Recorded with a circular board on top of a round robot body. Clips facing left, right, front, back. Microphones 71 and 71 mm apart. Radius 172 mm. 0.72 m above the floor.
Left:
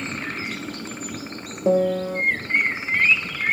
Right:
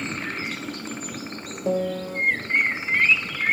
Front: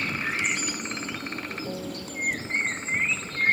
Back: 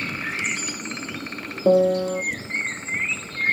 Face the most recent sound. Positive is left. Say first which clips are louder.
# left 6 dB, back 18 dB
turn(degrees=160)